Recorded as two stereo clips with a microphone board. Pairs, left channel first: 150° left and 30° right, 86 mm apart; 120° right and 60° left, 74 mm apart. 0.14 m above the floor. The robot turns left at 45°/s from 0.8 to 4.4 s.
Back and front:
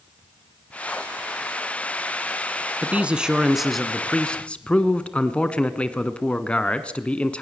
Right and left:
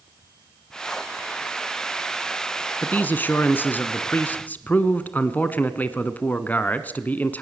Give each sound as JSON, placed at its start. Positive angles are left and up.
{"t": 2.8, "sound": "a man speaking", "azimuth_deg": -80, "distance_m": 1.3}